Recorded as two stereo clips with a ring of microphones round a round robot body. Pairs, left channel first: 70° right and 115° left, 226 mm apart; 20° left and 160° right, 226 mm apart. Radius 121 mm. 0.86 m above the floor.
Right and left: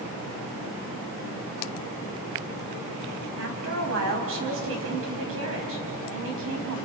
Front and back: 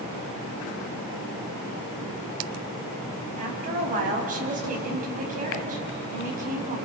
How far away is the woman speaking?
About 5.5 m.